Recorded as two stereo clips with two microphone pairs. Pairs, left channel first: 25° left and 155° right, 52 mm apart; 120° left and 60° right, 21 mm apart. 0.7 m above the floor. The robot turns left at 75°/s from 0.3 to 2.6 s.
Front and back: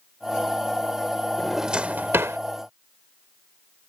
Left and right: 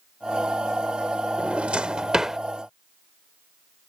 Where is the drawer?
60° right; by 2.4 s 135° right.